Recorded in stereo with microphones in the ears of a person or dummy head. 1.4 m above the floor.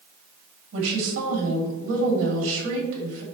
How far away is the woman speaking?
About 2.5 m.